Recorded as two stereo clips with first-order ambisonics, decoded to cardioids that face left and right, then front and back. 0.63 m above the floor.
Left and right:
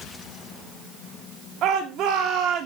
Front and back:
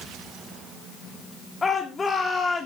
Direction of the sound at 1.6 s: 70° right.